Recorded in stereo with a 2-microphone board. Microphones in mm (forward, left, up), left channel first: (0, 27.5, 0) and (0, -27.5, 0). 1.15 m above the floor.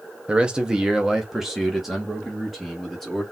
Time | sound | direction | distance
0.3 | a man speaking | 15° right (ahead or behind) | 0.8 m